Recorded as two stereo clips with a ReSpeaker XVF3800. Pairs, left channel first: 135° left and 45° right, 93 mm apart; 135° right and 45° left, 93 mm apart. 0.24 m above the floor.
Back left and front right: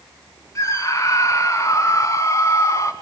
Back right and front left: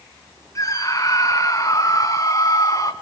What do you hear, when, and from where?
0.6 s a scream: 175° right, 2 m